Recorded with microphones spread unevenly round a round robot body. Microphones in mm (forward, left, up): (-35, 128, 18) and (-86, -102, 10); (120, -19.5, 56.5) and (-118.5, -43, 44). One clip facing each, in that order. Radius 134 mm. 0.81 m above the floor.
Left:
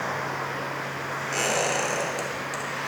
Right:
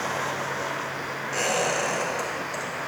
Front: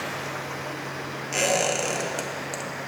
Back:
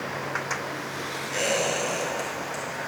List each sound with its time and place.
1.3 s a squeak: 20° left, 1.1 m